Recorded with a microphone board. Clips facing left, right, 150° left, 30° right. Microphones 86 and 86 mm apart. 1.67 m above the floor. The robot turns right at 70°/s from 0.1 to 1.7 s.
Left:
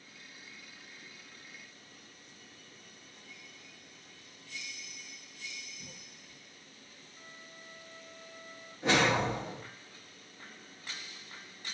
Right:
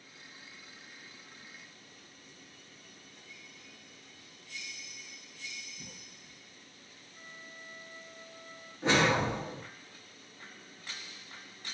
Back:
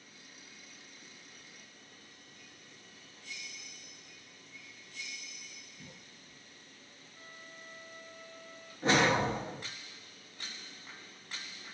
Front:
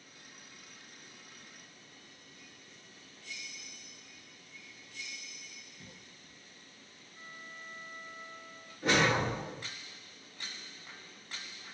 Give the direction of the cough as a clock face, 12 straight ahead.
4 o'clock.